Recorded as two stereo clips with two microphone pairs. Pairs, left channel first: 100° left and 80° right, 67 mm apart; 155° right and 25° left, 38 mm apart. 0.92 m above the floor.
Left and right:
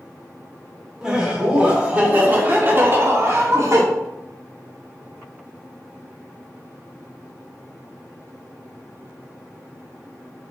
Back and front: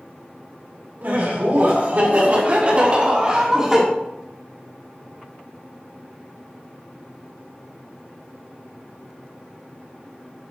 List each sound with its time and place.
1.0 s laughter: 5° right, 2.5 m; by 3.8 s 50° right, 1.7 m